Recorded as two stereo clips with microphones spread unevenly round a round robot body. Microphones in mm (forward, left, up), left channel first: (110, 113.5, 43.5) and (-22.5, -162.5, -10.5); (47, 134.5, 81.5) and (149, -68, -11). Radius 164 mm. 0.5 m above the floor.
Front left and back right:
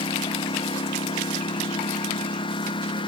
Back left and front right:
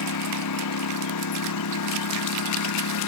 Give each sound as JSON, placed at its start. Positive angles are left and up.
{"t": 0.0, "sound": "a lawn mower", "azimuth_deg": 140}